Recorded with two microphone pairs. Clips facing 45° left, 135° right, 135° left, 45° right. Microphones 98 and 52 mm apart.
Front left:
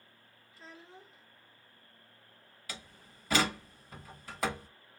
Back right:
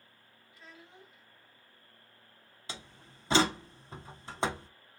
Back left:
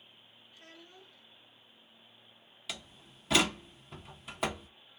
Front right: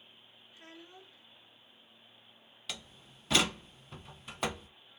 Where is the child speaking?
10° left, 1.1 m.